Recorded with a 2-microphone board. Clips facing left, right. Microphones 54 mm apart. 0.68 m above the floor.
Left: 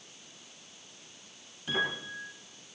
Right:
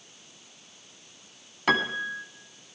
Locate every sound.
1.7 s a piano: 80° right, 3.5 m